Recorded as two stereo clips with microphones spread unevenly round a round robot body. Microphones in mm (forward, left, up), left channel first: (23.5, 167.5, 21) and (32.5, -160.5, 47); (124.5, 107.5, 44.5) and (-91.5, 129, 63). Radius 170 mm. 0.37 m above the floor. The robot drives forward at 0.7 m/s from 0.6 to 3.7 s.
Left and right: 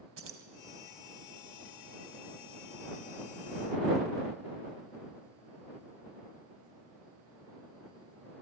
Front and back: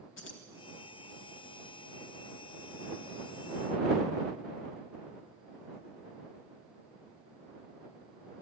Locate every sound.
0.2 s keys jangling: 40° right, 1.8 m